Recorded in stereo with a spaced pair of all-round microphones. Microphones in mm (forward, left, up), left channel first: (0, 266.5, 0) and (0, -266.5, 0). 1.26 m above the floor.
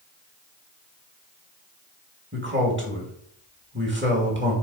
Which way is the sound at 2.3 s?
20° right (ahead or behind).